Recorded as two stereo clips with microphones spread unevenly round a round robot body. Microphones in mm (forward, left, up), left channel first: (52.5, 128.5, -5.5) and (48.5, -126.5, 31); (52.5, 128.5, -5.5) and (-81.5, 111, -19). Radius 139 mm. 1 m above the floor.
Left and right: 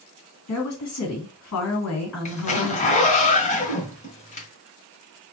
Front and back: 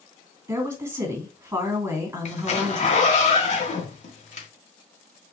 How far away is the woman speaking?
About 2.5 m.